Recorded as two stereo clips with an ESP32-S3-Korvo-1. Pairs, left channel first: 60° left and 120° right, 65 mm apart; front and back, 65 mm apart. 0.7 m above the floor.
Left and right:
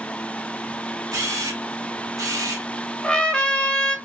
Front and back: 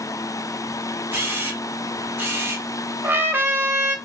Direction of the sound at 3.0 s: 135° left.